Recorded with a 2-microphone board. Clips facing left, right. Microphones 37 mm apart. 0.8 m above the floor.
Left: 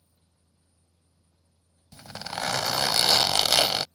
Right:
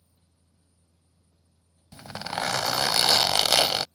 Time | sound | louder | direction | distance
1.9 | a zipper | right 3 dB | 15° right (ahead or behind) | ?